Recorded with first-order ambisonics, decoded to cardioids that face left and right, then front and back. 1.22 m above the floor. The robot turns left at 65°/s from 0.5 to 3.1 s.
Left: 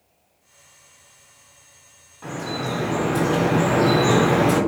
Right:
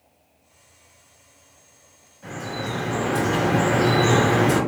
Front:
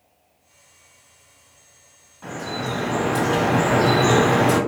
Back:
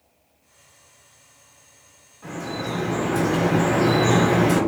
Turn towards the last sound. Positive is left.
turn(degrees=5)